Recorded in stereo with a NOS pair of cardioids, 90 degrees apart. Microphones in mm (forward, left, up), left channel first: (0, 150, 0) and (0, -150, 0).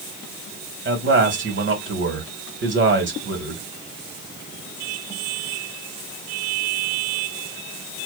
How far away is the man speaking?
About 1.3 m.